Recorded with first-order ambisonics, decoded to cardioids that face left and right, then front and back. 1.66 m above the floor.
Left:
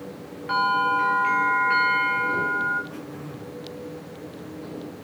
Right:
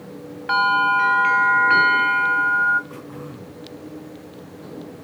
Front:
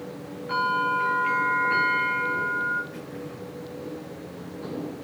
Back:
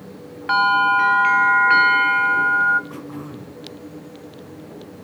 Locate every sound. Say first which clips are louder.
0.5 s a bell: right 4 dB, back 8 dB; 160° right, 2 m
2.9 s throat clearing: right 1 dB, back 3 dB; 170° right, 6 m